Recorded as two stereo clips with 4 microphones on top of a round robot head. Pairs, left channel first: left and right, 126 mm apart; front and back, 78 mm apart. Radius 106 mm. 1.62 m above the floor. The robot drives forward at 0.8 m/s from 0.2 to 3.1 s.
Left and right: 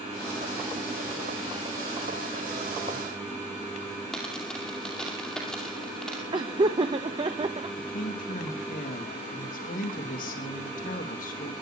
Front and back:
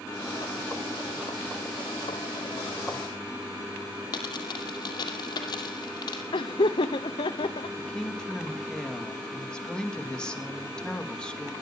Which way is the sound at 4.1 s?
5° left.